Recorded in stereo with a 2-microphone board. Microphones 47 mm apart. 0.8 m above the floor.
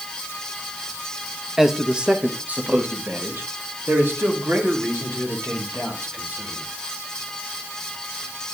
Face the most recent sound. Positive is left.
turn(degrees=-65)  # may be behind; listen again after turning